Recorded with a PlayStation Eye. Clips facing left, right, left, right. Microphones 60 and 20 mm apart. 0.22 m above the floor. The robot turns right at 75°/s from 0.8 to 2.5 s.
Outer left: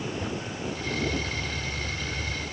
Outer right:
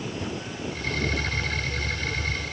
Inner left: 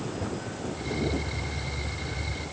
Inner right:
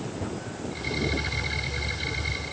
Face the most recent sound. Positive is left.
No sound to turn to.